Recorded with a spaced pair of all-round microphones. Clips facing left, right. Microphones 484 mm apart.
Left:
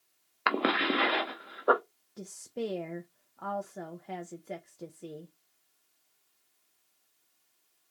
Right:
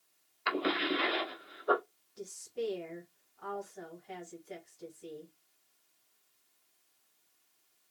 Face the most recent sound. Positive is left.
turn(degrees=70)  # may be behind; listen again after turning